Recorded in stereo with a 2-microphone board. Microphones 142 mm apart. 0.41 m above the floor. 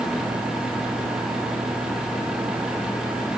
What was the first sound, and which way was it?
Only background noise.